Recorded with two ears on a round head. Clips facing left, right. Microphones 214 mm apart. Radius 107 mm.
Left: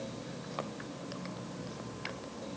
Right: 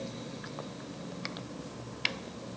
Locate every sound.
Only background noise.